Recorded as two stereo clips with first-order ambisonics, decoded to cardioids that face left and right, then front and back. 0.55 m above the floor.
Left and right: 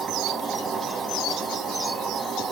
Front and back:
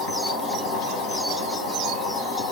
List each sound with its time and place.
0.0 s an insect: 15° right, 7 m